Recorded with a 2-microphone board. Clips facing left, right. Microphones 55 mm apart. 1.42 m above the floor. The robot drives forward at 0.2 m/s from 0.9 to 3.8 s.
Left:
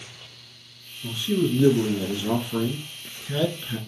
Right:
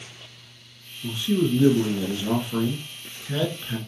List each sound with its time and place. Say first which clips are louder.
1.0 s a man speaking: right 1 dB; 10° right (ahead or behind), 1.6 m; by 3.8 s 15° right (ahead or behind), 1.1 m